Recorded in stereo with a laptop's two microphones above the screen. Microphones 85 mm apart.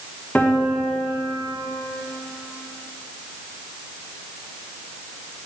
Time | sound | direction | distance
0.3 | a piano | 15° left (ahead or behind) | 1.0 m